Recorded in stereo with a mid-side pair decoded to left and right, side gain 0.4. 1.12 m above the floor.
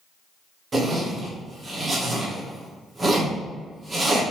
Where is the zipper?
30° right, 1.7 m.